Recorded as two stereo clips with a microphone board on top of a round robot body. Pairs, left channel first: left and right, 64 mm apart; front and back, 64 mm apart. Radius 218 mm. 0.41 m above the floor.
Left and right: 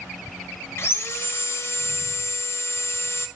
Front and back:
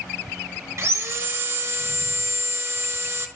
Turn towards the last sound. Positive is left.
turn(degrees=140)